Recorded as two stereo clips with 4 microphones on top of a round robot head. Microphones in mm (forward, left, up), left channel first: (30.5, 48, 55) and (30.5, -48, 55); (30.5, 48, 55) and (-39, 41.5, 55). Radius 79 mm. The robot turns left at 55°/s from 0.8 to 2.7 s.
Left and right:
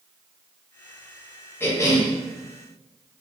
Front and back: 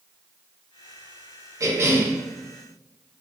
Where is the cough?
155° left, 0.8 m; by 2.1 s 125° left, 0.8 m.